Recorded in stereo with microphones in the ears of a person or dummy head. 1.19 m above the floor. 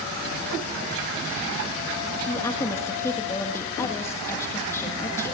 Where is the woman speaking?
15° left (ahead or behind), 1.8 m.